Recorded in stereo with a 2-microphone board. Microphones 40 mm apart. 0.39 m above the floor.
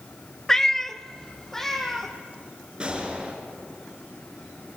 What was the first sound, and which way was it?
A cat meowing, 15° left (ahead or behind).